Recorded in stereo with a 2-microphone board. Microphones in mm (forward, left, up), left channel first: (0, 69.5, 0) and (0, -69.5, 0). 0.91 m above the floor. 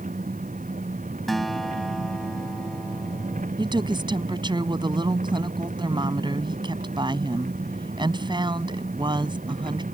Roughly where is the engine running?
Right.